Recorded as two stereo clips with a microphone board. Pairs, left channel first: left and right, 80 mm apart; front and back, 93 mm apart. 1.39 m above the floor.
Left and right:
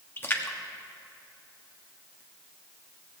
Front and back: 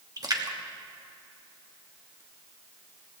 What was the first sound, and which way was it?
A splash, 145° left.